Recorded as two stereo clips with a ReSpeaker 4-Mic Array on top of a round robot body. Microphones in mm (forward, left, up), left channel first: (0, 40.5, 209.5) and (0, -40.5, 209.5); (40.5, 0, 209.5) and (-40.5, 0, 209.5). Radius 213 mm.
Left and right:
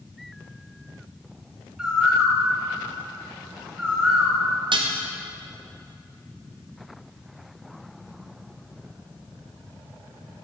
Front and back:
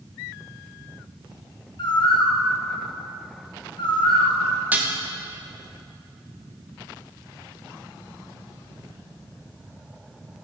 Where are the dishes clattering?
110° right, 0.6 m.